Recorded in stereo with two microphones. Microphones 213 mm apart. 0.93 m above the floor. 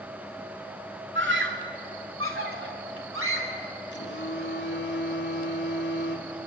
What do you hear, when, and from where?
1.1 s a scream: 60° right (ahead or behind), 2.5 m; by 3.6 s 75° right (ahead or behind), 4 m
3.9 s a phone buzzing: 60° left (ahead or behind), 1.5 m